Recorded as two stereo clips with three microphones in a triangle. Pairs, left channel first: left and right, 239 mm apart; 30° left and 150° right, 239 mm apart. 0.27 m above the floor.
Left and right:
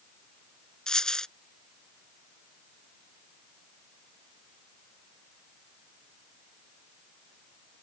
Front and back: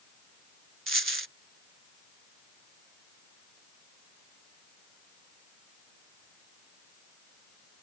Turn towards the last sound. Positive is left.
turn(degrees=175)